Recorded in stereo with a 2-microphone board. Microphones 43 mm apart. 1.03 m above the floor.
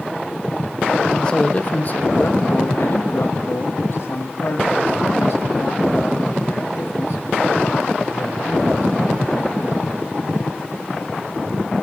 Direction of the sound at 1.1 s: 15° left (ahead or behind).